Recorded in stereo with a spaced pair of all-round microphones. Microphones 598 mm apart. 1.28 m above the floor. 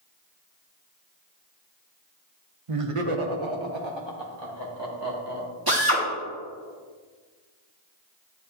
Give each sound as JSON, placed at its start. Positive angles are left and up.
{"t": 2.7, "sound": "laughter", "side_deg": -65, "distance_m": 0.8}
{"t": 5.7, "sound": "a drill", "side_deg": -35, "distance_m": 2.0}